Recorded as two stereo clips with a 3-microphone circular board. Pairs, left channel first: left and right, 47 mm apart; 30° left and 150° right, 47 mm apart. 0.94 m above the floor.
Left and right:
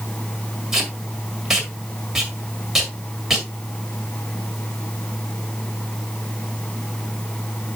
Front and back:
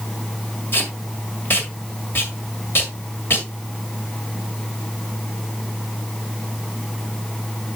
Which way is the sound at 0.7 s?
5° right.